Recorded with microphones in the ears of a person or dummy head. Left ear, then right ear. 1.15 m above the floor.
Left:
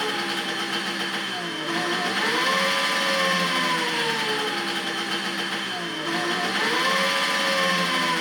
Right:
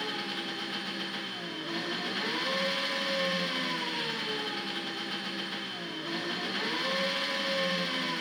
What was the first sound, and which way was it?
An engine running, 30° left (ahead or behind).